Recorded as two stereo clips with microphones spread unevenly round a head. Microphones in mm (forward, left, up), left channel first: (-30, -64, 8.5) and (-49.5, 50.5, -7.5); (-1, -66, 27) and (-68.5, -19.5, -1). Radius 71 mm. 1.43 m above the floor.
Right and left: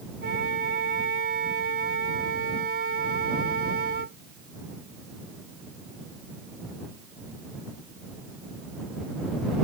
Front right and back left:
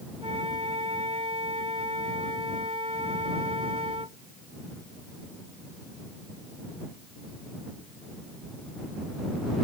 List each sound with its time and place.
0.2 s a flute: 85° left